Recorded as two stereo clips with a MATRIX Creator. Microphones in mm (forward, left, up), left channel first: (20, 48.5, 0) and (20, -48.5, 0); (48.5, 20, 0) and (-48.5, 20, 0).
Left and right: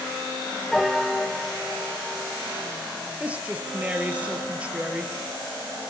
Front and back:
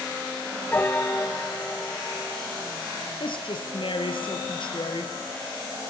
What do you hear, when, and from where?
0.7 s a piano: straight ahead, 1.1 m
3.2 s a woman speaking: 15° right, 3.5 m